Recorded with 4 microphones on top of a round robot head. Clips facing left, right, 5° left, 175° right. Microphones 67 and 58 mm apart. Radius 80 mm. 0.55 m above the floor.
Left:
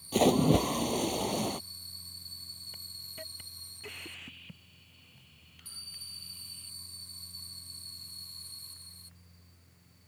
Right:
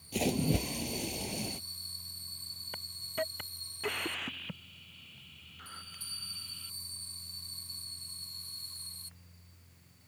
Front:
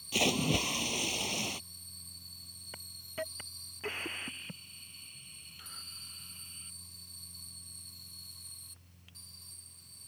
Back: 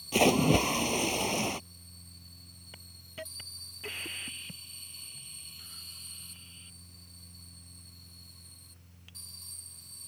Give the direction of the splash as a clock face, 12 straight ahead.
8 o'clock.